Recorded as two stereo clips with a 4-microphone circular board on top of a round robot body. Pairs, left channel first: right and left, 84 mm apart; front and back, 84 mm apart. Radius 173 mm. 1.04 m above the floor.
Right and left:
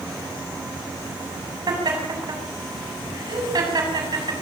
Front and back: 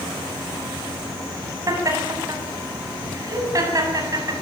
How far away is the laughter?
About 8 m.